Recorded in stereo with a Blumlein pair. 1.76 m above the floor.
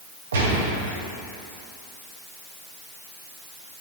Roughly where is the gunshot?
Ahead right.